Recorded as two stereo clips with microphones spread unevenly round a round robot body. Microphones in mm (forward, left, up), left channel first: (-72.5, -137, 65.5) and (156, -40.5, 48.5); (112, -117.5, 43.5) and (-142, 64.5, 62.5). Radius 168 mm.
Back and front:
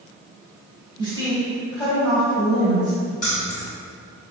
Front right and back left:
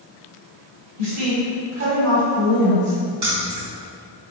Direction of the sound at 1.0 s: 135° left.